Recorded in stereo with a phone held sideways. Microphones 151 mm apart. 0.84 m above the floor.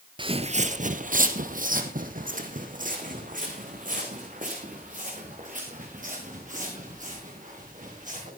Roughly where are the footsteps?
Right.